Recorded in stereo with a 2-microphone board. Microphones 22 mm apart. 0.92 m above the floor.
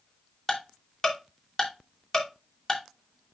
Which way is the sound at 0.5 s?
20° left (ahead or behind).